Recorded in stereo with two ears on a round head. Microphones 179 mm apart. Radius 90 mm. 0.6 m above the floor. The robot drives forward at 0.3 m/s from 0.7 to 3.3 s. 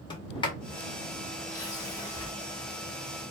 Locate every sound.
0.1 s a sliding door: 25° left (ahead or behind), 0.8 m; by 2.3 s 15° left (ahead or behind), 1.1 m